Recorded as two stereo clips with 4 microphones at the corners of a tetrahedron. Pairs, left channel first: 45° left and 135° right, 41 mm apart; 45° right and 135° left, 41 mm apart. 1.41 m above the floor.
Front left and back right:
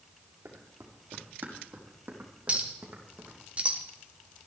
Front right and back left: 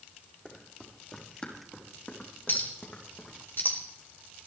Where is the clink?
75° right, 2.5 m.